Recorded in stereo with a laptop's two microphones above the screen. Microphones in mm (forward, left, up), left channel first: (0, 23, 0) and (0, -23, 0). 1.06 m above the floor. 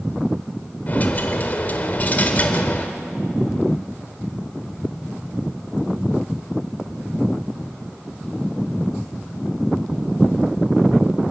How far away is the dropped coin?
About 1.4 m.